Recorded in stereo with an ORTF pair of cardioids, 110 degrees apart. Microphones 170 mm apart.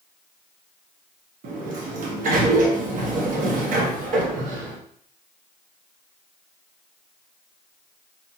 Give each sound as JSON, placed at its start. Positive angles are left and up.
{"t": 1.4, "sound": "a sliding door", "azimuth_deg": -55, "distance_m": 0.7}